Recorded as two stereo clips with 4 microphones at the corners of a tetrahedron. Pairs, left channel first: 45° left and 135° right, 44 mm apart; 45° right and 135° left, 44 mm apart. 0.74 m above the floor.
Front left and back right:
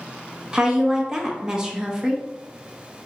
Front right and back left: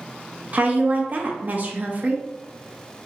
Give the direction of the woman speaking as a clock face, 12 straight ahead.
7 o'clock.